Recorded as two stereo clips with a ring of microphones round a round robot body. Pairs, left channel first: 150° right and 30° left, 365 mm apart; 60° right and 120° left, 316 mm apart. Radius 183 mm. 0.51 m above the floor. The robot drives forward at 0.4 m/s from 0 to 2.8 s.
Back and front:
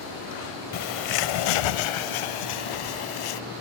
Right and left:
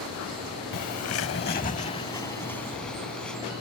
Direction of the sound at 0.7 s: 105° right.